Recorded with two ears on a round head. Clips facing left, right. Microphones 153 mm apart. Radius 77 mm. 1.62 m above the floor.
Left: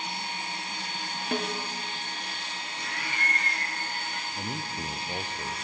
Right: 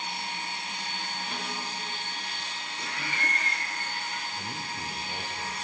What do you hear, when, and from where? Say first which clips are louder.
1.3 s a snare drum: left 10 dB; 45° left (ahead or behind), 0.6 m
2.8 s laughter: right 1 dB; 75° right (ahead or behind), 0.6 m
4.4 s a man speaking: left 3 dB; 15° left (ahead or behind), 0.6 m